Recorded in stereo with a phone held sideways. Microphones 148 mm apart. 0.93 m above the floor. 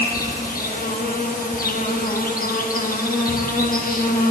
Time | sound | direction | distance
0.0 | an insect | 75° left (ahead or behind) | 1.3 m